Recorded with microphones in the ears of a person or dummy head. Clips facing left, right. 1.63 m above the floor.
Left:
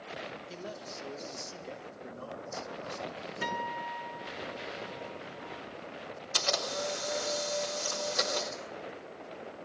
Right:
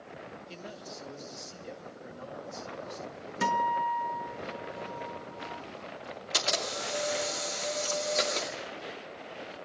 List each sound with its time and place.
0.5 s a man speaking: centre (ahead or behind), 2.5 m
3.4 s a guitar: 65° right (ahead or behind), 1.6 m
6.3 s a camera shutter: 30° right (ahead or behind), 2.5 m